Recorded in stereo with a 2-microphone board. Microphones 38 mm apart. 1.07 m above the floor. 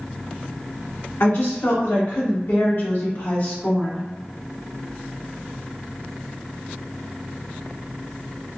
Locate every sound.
1.2 s a woman speaking: 85° left, 1.9 m; by 4.1 s 20° left (ahead or behind), 0.8 m